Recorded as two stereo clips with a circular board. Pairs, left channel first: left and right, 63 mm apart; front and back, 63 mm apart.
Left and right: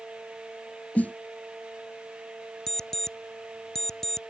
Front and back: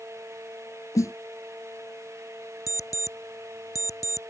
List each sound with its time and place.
0.9 s a snare drum: 25° left
2.7 s an alarm clock: 10° left